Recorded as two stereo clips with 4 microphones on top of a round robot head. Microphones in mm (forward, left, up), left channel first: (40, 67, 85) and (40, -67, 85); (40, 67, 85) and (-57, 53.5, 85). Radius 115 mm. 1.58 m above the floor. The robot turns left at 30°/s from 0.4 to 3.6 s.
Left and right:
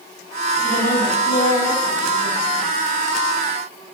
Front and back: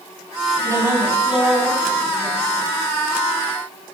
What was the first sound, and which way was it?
A woman speaking, 130° left.